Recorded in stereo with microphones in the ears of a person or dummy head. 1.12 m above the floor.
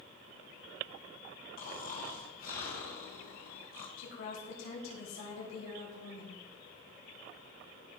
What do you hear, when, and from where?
1.6 s snoring: 50° left (ahead or behind), 2.5 m
4.0 s a woman speaking: 85° left, 6.5 m